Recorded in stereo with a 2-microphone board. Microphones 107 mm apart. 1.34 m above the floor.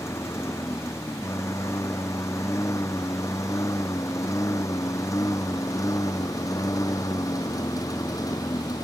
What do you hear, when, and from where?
0.0 s a lawn mower: 25° left (ahead or behind); by 8.8 s 35° left (ahead or behind)